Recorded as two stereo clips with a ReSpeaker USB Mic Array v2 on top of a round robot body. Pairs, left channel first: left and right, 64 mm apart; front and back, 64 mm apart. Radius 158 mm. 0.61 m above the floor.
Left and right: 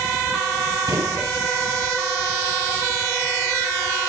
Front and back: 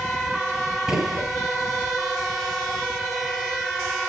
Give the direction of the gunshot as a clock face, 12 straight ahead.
3 o'clock.